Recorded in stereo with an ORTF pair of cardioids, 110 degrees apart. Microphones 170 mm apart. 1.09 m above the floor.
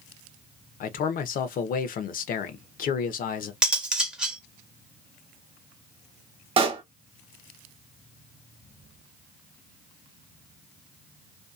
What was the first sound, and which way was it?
A man speaking, 55° left.